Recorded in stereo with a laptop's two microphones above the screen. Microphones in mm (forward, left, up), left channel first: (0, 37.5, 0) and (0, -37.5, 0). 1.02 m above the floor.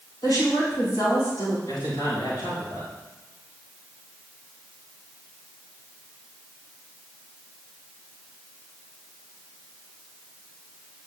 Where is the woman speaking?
75° left (ahead or behind), 4 m.